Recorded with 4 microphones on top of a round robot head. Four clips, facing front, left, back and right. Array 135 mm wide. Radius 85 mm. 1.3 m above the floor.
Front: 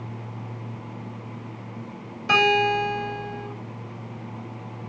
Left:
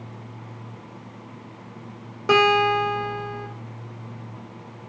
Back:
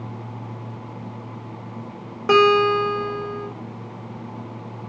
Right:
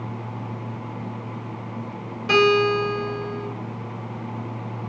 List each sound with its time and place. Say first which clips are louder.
2.3 s a guitar: even, back 5 dB; 150° left, 1.2 m